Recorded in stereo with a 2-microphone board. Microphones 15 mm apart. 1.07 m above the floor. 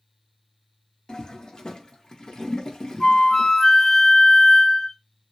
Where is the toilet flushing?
45° left (ahead or behind), 1.0 m.